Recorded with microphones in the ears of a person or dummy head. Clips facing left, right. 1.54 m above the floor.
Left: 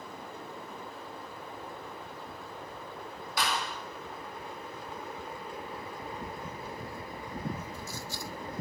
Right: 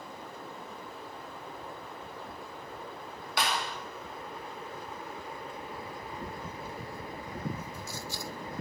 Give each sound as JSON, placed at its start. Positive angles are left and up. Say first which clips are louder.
{"t": 3.4, "sound": "a clap", "louder": "right 1 dB", "side_deg": -60, "distance_m": 2.5}